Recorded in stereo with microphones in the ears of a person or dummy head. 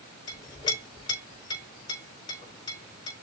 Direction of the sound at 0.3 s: 30° left (ahead or behind).